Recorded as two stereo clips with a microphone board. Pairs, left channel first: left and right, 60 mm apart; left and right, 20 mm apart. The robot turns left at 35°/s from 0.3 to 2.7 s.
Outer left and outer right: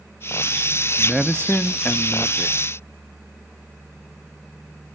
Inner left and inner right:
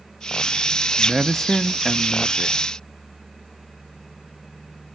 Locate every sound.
1.0 s a man speaking: 175° left, 0.6 m; by 2.6 s 120° left, 0.6 m